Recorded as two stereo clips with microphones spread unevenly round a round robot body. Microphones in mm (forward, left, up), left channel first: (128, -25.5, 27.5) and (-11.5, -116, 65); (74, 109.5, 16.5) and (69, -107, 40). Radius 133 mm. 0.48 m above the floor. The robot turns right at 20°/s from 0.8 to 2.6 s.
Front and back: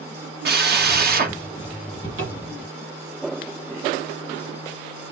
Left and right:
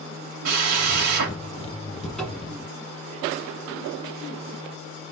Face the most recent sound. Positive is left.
turn(degrees=-175)